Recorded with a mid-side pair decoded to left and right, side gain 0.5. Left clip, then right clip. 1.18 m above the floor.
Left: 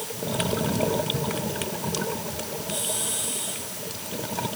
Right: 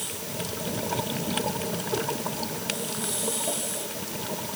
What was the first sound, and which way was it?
Only background noise.